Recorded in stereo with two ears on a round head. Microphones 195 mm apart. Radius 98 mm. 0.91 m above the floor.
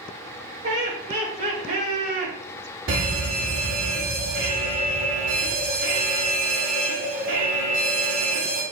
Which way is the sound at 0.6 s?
40° right (ahead or behind).